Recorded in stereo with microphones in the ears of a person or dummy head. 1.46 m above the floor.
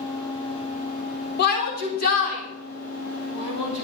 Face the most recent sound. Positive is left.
turn(degrees=40)  # may be behind; listen again after turning